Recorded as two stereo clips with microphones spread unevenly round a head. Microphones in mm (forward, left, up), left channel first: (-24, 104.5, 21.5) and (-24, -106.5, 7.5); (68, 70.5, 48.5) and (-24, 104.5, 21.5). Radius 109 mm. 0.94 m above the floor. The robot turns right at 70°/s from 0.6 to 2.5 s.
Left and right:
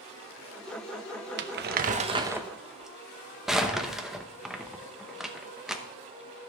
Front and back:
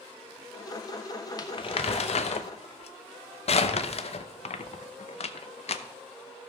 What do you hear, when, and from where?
1.4 s crumpling: 85° right, 0.7 m; by 5.8 s 5° right, 0.7 m